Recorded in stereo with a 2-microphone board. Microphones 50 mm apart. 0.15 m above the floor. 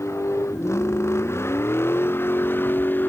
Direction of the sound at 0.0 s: 65° left (ahead or behind).